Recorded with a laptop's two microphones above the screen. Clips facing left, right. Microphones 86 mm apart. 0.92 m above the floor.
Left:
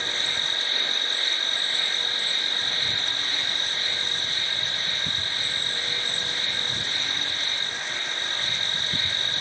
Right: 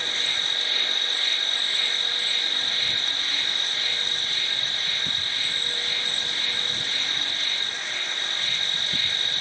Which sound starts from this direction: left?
An insect, at 0.0 s.